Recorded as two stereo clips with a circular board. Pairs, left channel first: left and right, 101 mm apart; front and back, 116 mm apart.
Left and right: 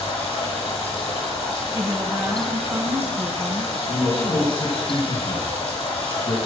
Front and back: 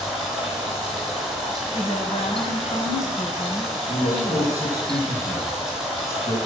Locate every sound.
0.0 s running water: 95° left, 4.5 m
1.7 s a woman speaking: 25° right, 3 m
3.9 s a man speaking: 60° left, 3.5 m